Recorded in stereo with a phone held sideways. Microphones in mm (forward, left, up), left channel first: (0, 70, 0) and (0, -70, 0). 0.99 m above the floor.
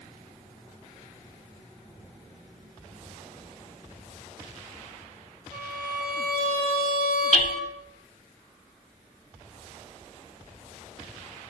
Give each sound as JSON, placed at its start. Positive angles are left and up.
{"t": 5.5, "sound": "a violin", "side_deg": 25, "distance_m": 1.5}
{"t": 7.3, "sound": "hammering", "side_deg": 50, "distance_m": 0.9}